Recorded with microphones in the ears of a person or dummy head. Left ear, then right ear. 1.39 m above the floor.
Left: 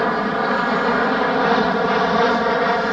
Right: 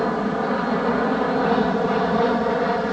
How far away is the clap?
No clap in this recording.